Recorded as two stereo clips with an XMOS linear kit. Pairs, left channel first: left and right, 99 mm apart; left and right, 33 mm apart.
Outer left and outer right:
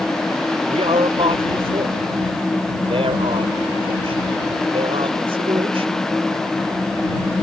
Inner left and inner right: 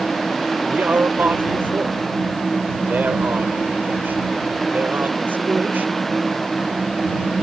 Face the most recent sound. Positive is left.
turn(degrees=-85)